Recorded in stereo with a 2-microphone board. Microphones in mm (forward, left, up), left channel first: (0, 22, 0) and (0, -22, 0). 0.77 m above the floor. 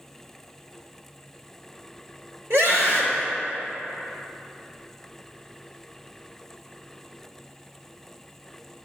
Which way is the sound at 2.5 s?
70° right (ahead or behind).